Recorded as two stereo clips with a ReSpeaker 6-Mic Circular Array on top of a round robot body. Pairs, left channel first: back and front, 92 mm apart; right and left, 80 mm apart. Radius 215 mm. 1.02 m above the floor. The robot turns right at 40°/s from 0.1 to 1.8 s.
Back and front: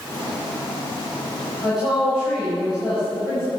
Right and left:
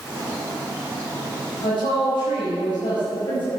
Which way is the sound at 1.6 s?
95° right.